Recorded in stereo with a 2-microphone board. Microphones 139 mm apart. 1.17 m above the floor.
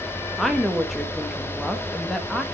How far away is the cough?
No cough in this recording.